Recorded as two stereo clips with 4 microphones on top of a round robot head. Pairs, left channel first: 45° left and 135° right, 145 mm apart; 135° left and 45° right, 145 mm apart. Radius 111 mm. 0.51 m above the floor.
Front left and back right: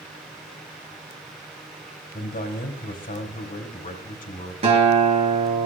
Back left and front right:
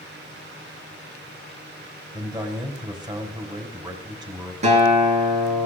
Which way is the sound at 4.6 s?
90° right.